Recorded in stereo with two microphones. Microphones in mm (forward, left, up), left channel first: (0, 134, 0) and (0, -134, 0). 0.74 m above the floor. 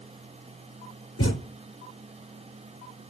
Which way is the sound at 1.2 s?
65° left (ahead or behind).